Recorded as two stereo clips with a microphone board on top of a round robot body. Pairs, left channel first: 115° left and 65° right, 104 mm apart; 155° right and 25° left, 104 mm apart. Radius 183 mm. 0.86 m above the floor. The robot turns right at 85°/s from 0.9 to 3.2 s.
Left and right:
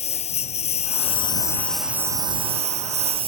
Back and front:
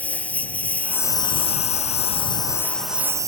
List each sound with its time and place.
0.0 s a lawn mower: 125° left; by 3.3 s 40° right